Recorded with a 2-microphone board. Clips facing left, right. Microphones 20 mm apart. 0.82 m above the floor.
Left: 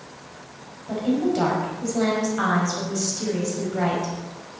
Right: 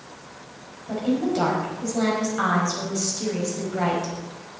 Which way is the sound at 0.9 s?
Centre (ahead or behind).